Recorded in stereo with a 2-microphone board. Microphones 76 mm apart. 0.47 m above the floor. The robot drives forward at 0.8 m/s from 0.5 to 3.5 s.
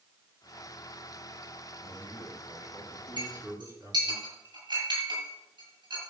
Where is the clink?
70° right (ahead or behind), 8 m; by 6.0 s 65° right (ahead or behind), 8 m.